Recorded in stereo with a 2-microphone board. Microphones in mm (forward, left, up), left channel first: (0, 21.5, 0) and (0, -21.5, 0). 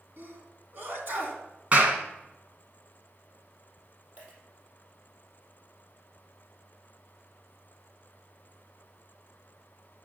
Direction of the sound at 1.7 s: 35° right (ahead or behind).